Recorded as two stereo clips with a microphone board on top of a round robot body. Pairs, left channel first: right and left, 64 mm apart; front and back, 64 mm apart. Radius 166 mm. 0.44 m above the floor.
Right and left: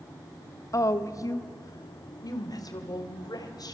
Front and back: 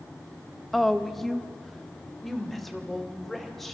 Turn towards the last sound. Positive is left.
turn(degrees=-85)